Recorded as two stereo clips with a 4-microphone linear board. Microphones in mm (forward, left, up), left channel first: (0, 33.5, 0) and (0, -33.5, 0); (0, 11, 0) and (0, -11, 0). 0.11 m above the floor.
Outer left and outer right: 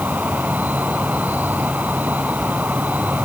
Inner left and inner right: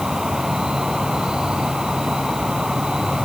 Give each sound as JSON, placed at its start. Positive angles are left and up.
{"t": 0.0, "sound": "an insect", "side_deg": -25}